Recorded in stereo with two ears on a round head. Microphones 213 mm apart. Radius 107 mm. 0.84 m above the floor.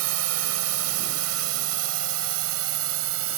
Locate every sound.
0.0 s a drone: 75° right (ahead or behind); by 3.4 s 65° right (ahead or behind)